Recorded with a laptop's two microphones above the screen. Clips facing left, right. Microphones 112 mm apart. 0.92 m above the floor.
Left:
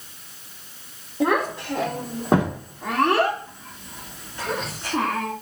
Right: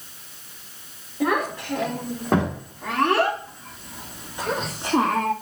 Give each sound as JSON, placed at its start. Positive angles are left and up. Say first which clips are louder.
{"t": 1.2, "sound": "a child speaking", "louder": "left 2 dB", "side_deg": 20, "distance_m": 2.5}